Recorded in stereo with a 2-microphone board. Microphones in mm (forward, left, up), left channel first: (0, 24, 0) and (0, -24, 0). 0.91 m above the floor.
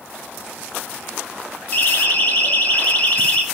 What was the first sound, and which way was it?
A siren, 35° left (ahead or behind).